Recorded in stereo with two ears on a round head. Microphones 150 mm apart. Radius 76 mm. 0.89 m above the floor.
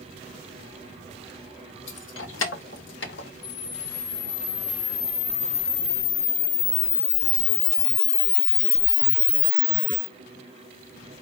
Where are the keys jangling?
70° left (ahead or behind), 1.3 m; by 3.3 s 75° left (ahead or behind), 1.2 m.